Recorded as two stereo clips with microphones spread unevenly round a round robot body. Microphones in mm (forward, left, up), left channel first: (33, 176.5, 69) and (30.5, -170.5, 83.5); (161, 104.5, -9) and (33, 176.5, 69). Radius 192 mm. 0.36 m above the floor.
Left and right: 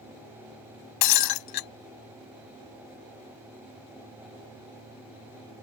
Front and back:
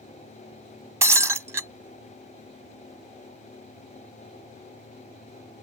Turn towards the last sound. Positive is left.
turn(degrees=70)